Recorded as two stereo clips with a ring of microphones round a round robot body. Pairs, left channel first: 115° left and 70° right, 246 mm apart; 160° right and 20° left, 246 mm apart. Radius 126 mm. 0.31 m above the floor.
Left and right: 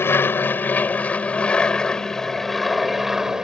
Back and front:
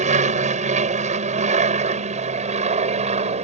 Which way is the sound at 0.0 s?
40° left.